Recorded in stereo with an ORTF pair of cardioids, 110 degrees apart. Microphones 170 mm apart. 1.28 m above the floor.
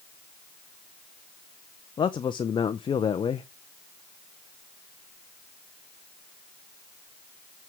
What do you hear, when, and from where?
2.0 s a man speaking: 30° left, 0.6 m